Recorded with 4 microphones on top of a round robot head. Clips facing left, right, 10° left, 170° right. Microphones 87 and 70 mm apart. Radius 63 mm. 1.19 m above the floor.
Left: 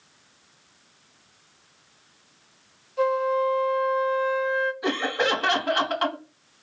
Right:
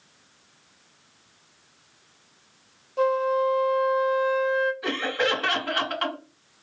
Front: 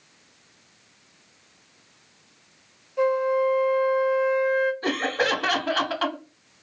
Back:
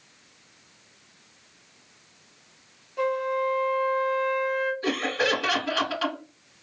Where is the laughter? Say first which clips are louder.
Left 1 dB, front 1 dB; 25° left, 1.0 m.